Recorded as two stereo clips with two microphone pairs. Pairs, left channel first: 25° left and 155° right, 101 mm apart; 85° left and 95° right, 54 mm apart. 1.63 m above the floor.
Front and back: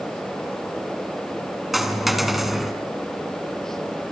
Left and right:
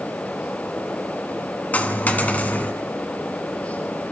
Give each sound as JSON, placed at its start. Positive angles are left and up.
{"t": 1.7, "sound": "a dropped coin", "azimuth_deg": 115, "distance_m": 1.9}